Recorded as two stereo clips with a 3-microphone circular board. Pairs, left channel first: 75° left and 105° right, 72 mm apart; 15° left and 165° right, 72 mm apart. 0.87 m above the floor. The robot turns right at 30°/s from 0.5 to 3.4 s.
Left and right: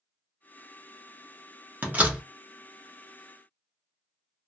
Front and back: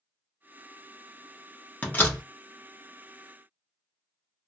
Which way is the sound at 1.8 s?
45° right.